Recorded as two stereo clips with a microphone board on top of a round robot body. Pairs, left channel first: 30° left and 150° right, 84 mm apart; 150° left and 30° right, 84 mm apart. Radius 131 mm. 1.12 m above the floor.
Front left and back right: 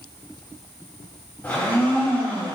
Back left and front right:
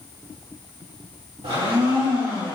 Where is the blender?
40° right, 4.5 m.